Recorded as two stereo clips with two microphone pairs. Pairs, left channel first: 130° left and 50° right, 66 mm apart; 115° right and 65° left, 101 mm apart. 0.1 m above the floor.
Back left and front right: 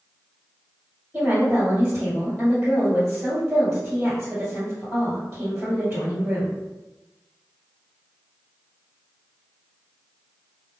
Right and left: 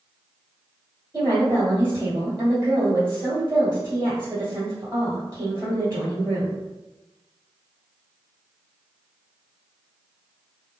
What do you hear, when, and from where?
1.1 s a woman speaking: 20° left, 1.8 m